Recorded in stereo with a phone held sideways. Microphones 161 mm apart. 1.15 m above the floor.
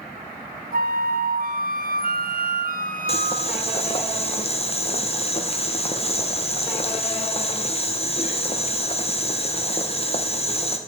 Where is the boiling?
40° left (ahead or behind), 1.0 m.